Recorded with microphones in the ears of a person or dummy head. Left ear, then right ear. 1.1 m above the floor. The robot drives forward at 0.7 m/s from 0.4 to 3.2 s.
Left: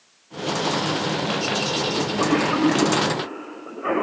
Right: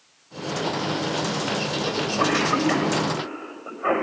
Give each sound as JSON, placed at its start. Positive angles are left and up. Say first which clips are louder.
{"t": 1.9, "sound": "a cough", "louder": "left 1 dB", "side_deg": -25, "distance_m": 4.5}